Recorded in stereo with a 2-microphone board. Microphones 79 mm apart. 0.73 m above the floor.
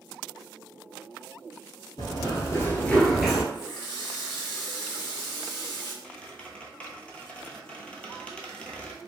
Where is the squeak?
15° left (ahead or behind), 0.7 m.